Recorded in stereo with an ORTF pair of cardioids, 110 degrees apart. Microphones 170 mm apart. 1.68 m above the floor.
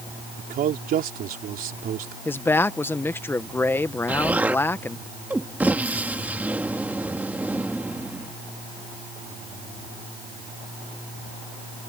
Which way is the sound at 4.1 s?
10° right.